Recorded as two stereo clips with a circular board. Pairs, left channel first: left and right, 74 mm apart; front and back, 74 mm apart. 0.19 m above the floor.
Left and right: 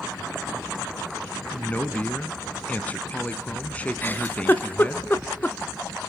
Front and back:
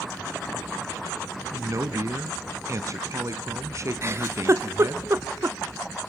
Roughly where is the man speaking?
Behind left.